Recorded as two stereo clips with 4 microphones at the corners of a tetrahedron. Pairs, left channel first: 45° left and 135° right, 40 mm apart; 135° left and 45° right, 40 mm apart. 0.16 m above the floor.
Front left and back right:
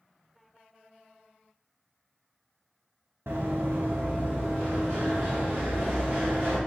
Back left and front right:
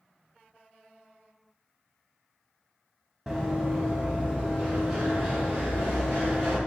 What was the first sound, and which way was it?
Running footsteps, 120° right.